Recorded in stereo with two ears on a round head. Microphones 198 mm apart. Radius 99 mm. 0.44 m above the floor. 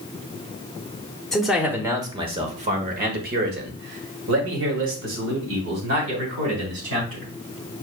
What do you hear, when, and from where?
1.3 s a man speaking: centre (ahead or behind), 1.0 m; by 7.3 s 75° right (ahead or behind), 3 m